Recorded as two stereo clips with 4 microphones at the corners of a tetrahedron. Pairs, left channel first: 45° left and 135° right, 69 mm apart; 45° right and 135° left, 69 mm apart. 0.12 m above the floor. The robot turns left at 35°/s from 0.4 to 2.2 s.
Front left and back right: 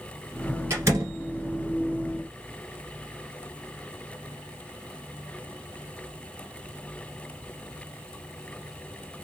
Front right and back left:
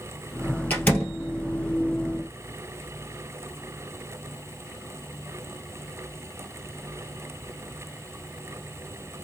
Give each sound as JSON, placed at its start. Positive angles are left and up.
{"t": 0.7, "sound": "a door slam", "azimuth_deg": -105, "distance_m": 1.6}